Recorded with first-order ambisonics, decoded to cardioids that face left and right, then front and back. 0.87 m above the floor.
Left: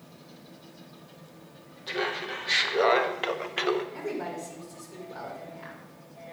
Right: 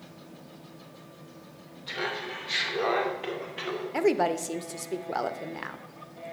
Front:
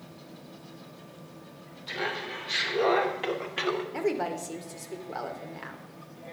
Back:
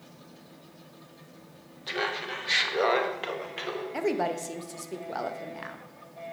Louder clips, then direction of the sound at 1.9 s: Left 2 dB, back 2 dB; 160° left.